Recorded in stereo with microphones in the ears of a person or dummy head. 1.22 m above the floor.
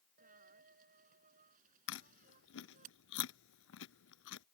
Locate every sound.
0.2 s a dropped coin: 50° right (ahead or behind)
1.9 s chewing: 75° left (ahead or behind)